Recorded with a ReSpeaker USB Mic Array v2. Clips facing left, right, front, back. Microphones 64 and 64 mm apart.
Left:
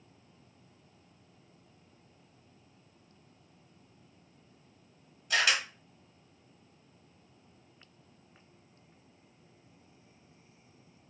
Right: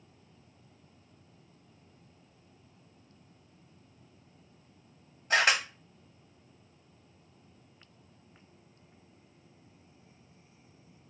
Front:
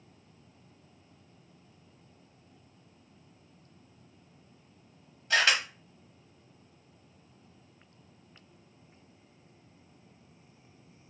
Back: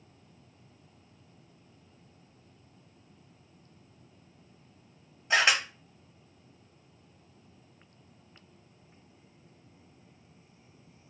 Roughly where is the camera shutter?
Behind right.